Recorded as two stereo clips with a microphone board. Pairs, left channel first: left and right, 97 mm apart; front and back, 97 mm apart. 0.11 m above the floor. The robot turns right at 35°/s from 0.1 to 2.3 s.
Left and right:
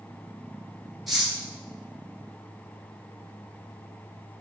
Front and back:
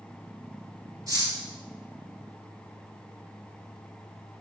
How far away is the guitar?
No guitar in this recording.